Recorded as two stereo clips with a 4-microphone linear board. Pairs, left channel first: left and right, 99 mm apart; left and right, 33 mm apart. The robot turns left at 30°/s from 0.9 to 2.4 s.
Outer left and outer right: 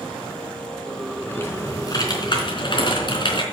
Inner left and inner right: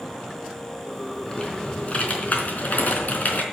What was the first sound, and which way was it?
Typing on a keyboard, 160° left.